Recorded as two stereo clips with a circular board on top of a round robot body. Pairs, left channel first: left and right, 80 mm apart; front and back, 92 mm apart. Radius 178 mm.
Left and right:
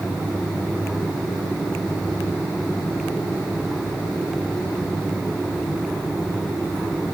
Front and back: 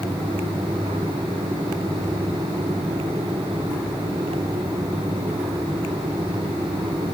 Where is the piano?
I don't hear a piano.